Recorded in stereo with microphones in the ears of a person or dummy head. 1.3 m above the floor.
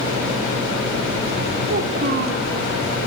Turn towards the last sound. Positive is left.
turn(degrees=-55)  # may be behind; listen again after turning